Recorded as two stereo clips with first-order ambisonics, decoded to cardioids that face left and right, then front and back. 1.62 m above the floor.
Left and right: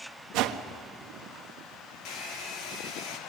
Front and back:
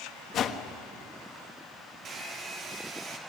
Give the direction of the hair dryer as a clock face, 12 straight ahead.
8 o'clock.